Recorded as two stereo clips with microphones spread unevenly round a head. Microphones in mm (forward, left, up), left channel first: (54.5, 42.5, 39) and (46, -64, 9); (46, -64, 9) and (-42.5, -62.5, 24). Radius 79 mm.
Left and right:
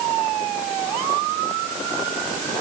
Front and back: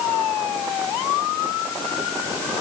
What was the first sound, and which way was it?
Only background noise.